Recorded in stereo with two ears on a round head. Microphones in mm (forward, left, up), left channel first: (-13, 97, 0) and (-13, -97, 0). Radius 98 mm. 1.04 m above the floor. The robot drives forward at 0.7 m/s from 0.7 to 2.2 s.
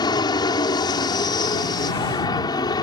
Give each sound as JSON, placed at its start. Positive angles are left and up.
{"t": 0.0, "sound": "an aircraft", "side_deg": 20}